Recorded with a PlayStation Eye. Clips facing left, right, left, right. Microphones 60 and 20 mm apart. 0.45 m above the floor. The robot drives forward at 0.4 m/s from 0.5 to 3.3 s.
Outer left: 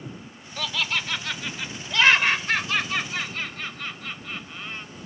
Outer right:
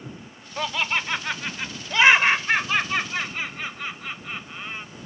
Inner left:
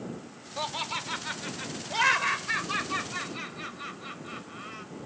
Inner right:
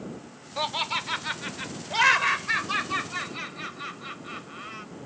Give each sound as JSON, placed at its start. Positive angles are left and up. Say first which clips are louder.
{"t": 0.6, "sound": "laughter", "louder": "outer right 3 dB, inner right 4 dB", "side_deg": -30}